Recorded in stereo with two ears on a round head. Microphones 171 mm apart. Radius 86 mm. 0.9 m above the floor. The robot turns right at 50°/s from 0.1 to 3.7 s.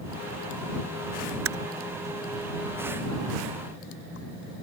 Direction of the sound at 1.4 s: 85° right.